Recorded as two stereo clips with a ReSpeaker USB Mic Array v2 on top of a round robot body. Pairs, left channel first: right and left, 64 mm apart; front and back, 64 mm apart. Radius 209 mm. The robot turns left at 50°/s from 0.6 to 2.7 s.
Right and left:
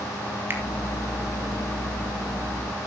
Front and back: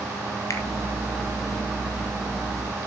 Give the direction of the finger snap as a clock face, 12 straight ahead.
11 o'clock.